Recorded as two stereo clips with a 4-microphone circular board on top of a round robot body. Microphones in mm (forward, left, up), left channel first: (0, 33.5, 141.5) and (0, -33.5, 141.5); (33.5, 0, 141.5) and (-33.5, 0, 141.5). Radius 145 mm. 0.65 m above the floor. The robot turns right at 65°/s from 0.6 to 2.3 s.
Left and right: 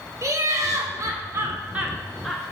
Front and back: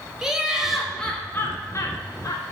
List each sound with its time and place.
0.2 s laughter: 100° right, 1.5 m; by 2.4 s 10° left, 1.5 m